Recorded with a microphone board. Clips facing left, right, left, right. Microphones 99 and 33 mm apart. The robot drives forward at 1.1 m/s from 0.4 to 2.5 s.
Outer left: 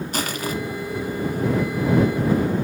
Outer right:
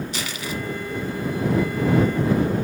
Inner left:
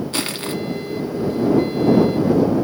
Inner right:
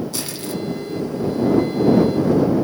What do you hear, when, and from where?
0.1 s crushing: 45° left (ahead or behind), 1.3 m